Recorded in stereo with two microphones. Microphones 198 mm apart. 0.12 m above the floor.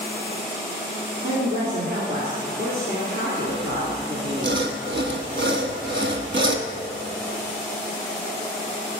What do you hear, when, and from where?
1.2 s a man speaking: 50° right (ahead or behind), 1.7 m
3.5 s sawing: 70° right (ahead or behind), 0.6 m